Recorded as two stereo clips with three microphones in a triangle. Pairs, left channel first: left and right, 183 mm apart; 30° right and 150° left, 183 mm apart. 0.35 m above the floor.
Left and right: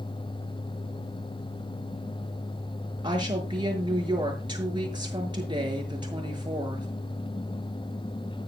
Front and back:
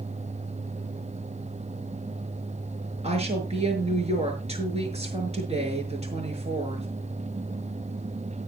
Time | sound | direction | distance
3.0 | a woman speaking | 155° right | 6.5 m